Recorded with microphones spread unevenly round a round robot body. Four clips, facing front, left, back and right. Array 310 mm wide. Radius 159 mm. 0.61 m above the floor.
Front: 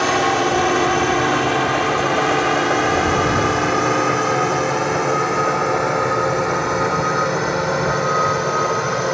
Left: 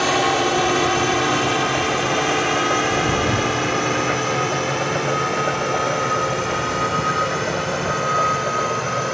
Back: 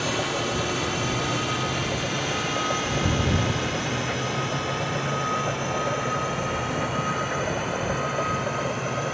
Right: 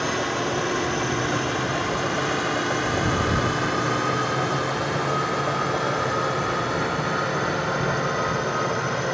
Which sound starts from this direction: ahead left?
A drone, at 0.0 s.